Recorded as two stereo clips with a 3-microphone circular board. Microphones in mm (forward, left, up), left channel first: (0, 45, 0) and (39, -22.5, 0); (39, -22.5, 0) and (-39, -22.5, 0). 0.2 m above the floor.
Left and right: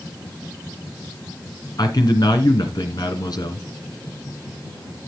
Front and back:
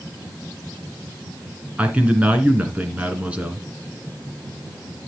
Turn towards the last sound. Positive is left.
turn(degrees=110)